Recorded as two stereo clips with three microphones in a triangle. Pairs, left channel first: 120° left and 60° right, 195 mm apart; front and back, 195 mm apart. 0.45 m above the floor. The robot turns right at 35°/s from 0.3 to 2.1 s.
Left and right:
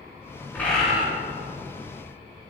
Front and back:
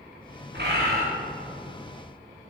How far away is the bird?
About 2.5 m.